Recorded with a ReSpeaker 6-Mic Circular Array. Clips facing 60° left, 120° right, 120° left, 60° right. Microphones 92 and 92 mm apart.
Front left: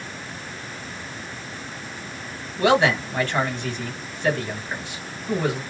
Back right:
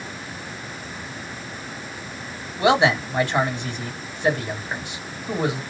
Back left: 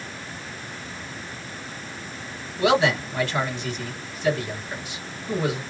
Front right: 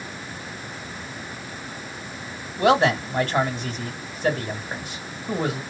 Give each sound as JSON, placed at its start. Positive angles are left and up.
{"t": 2.6, "sound": "a man speaking", "azimuth_deg": -55, "distance_m": 1.5}